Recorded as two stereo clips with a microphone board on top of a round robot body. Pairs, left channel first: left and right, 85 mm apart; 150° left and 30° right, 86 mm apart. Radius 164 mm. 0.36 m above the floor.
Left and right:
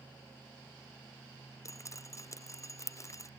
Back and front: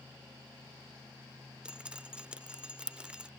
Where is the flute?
No flute in this recording.